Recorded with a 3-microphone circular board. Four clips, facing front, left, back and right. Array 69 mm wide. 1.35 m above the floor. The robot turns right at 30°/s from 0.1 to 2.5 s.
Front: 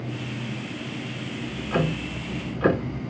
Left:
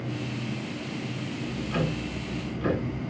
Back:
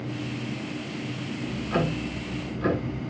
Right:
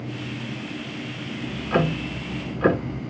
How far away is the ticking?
About 1.0 m.